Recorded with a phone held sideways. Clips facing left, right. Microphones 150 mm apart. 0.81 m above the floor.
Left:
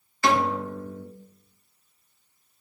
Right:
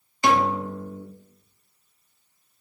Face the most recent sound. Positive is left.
turn(degrees=-15)  # may be behind; listen again after turning